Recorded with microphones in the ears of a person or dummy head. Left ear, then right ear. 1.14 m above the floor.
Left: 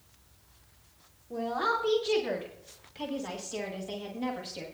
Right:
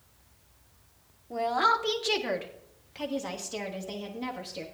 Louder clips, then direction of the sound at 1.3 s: Right 5 dB; 55° right (ahead or behind).